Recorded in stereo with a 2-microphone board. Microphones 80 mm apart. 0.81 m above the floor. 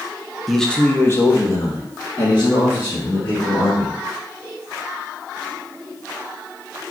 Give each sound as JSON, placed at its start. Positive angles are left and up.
{"t": 0.5, "sound": "a man speaking", "side_deg": 0, "distance_m": 0.6}